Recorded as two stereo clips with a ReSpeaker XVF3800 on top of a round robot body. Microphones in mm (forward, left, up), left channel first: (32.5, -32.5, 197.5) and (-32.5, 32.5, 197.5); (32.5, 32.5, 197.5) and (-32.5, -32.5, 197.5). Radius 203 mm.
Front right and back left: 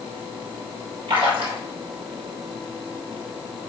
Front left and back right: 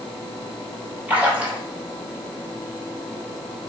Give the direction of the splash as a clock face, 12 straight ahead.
7 o'clock.